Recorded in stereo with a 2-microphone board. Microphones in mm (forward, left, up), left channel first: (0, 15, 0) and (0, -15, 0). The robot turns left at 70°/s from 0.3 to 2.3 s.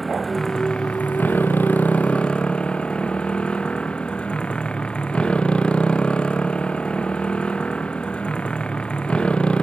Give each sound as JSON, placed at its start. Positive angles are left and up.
{"t": 0.0, "sound": "a motorcycle", "azimuth_deg": 170}